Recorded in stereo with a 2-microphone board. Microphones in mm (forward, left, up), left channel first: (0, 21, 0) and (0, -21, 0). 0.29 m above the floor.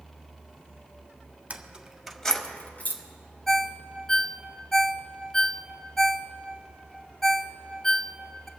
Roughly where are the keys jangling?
Right.